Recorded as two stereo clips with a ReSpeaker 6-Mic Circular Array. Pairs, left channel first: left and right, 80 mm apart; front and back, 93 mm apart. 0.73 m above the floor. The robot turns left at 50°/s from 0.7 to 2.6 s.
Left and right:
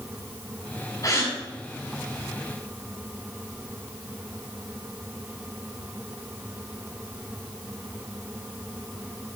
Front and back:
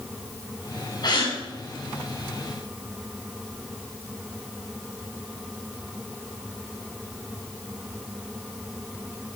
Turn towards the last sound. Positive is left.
turn(degrees=-35)